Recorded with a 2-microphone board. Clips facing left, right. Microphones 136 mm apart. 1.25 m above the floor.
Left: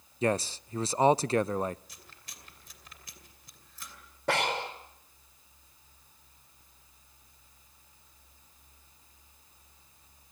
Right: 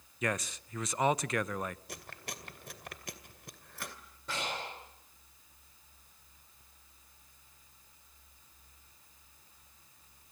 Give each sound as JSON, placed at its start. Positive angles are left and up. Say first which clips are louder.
{"t": 0.2, "sound": "a man speaking", "louder": "left 7 dB", "side_deg": 30, "distance_m": 0.5}
{"t": 1.9, "sound": "chewing", "louder": "right 10 dB", "side_deg": -65, "distance_m": 2.5}
{"t": 4.3, "sound": "breathing", "louder": "left 9 dB", "side_deg": 70, "distance_m": 4.0}